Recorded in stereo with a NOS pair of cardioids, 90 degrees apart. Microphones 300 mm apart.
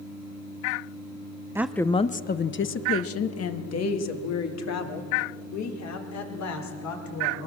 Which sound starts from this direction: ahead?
A woman speaking, at 1.6 s.